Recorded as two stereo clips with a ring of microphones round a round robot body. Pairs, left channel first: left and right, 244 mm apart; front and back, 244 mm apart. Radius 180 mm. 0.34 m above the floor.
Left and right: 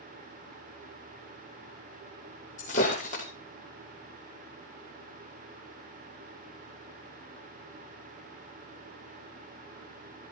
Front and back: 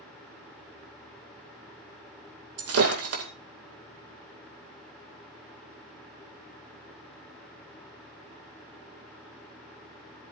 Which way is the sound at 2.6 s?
160° left.